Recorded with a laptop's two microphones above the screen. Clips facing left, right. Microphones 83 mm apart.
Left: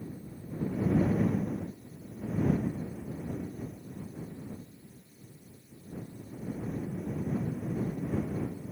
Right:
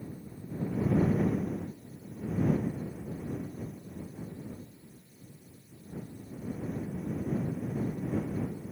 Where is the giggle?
I don't hear a giggle.